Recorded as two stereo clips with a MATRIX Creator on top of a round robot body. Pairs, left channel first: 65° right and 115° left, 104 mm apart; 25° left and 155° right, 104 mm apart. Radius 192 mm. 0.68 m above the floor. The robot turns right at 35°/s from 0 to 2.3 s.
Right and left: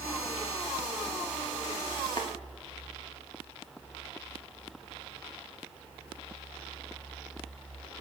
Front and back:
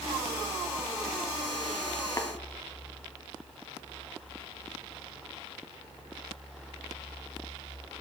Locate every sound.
2.2 s tapping: 30° right, 1.6 m